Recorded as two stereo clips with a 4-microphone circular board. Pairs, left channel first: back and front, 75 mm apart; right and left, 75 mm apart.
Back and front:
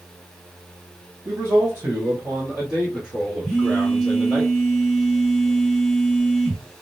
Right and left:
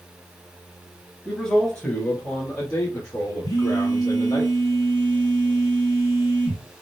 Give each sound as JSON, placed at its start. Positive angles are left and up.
{"t": 1.2, "sound": "a man speaking", "azimuth_deg": -15, "distance_m": 1.3}
{"t": 3.4, "sound": "a phone buzzing", "azimuth_deg": -95, "distance_m": 2.5}